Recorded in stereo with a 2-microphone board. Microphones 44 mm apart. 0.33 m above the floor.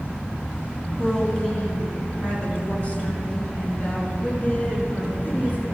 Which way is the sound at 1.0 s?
20° left (ahead or behind).